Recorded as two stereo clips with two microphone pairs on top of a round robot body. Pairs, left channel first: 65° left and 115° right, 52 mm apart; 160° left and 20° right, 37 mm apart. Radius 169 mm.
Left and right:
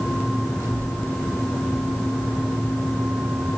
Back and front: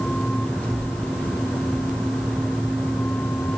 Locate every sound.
0.6 s a child speaking: 145° right, 4.5 m; by 3.5 s 130° right, 6.5 m